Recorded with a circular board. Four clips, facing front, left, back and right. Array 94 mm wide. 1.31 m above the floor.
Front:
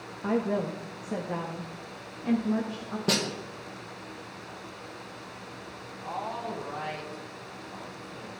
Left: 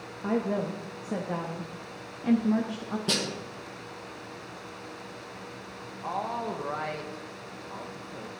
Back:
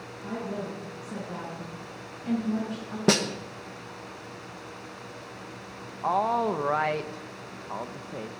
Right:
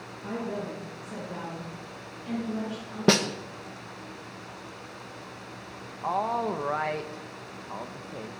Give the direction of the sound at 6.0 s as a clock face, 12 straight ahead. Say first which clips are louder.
Right 4 dB, back 10 dB; 5 o'clock.